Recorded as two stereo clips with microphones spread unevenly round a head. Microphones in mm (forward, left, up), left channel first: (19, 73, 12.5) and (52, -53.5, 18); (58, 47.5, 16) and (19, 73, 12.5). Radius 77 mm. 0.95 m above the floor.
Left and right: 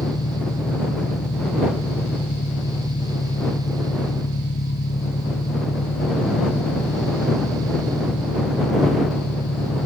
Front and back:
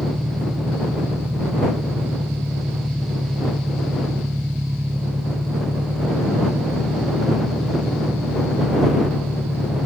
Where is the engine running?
110° left.